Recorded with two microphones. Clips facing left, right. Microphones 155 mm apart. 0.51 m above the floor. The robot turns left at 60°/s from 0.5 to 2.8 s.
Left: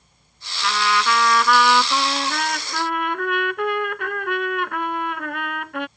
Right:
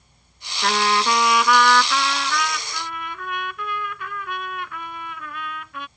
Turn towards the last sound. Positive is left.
turn(degrees=105)